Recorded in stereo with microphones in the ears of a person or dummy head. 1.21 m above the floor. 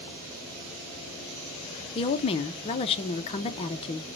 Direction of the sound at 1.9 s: 30° left (ahead or behind).